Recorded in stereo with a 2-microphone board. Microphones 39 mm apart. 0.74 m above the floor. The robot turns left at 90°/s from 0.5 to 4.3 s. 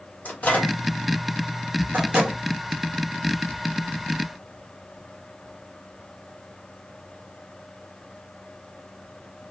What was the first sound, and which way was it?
A microwave, 45° left (ahead or behind).